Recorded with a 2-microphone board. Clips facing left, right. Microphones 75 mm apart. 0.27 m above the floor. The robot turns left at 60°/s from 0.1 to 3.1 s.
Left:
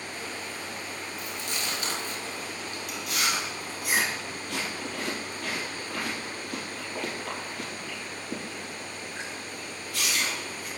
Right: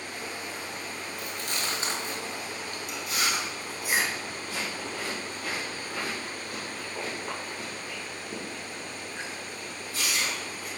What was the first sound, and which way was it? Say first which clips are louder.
Chewing: right 2 dB; 60° right (ahead or behind).